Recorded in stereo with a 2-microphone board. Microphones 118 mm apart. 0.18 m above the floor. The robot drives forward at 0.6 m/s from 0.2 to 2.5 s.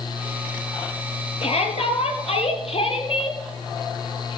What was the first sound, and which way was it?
A shout, 65° left (ahead or behind).